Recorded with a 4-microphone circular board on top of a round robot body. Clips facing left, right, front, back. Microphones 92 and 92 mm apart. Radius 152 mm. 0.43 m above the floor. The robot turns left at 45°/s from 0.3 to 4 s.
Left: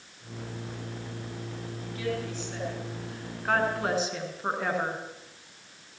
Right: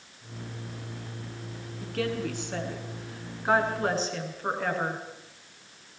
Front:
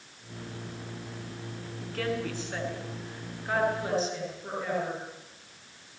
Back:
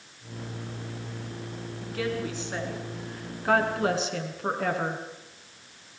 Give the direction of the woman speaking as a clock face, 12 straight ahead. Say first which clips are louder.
Right 3 dB, back 1 dB; 3 o'clock.